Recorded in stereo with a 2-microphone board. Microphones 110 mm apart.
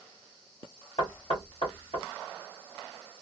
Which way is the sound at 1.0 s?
65° left (ahead or behind).